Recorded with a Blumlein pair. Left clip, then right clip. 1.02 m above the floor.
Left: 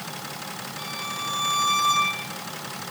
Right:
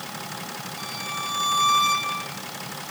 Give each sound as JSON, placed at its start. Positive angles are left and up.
{"t": 0.8, "sound": "a violin", "azimuth_deg": 0, "distance_m": 7.0}